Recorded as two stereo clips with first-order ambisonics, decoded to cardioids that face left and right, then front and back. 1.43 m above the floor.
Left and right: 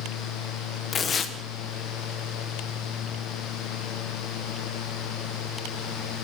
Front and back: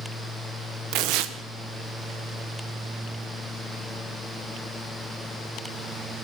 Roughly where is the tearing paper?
Behind left.